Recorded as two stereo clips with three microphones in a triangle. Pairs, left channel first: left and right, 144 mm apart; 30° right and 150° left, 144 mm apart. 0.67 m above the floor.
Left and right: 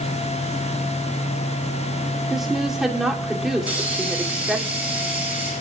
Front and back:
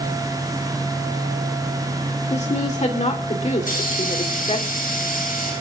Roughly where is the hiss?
Ahead.